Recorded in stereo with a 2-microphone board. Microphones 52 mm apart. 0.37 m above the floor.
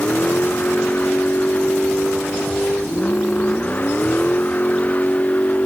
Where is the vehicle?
35° left (ahead or behind).